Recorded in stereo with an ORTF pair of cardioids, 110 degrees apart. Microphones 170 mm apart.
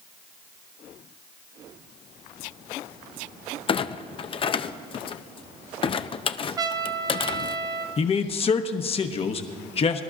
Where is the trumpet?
25° right, 0.8 m.